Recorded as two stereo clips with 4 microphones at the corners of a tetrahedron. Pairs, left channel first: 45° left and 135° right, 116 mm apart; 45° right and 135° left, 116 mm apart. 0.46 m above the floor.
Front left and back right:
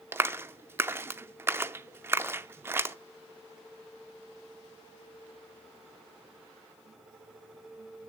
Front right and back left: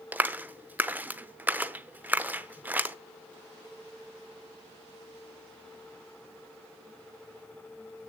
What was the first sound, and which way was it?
A clap, 175° right.